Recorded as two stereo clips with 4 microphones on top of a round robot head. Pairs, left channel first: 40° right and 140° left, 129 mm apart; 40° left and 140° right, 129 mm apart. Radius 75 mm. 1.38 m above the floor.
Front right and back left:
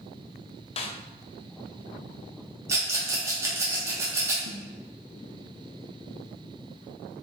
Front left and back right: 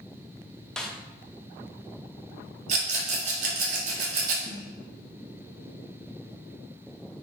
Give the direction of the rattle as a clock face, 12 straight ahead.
5 o'clock.